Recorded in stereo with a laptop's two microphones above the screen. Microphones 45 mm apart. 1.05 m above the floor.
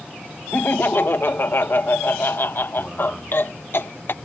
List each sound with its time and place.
0.5 s laughter: 50° left (ahead or behind)